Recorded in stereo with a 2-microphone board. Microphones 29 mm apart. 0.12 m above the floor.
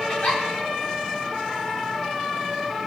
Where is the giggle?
55° left (ahead or behind), 2 m.